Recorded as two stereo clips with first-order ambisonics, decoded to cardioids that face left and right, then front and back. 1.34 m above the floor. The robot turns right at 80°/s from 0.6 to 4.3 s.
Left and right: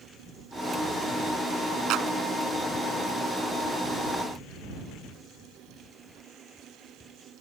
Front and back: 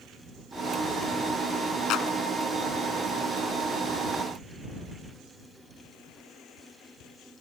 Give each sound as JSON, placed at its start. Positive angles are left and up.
{"t": 1.9, "sound": "a clap", "azimuth_deg": -50}